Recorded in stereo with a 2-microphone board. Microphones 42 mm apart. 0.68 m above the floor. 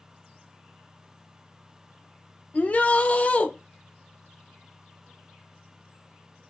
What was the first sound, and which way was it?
A shout, 35° left (ahead or behind).